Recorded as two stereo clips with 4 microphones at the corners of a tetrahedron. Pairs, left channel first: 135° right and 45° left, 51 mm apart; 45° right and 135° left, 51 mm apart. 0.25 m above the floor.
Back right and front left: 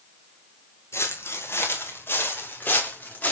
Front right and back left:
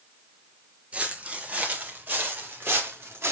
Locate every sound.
0.9 s footsteps: 160° right, 3 m; by 3.3 s 165° left, 2.5 m